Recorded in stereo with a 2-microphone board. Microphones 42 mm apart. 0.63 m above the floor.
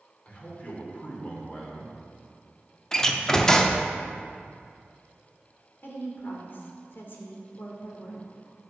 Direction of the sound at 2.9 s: 15° left (ahead or behind).